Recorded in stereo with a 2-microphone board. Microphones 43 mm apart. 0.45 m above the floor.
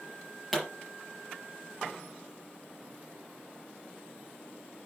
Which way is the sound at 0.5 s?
5° right (ahead or behind).